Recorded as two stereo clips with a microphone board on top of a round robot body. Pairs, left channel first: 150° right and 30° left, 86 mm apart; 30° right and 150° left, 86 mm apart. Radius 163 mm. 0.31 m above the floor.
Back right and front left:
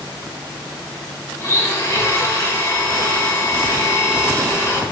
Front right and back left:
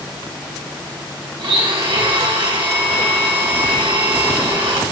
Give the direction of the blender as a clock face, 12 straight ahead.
7 o'clock.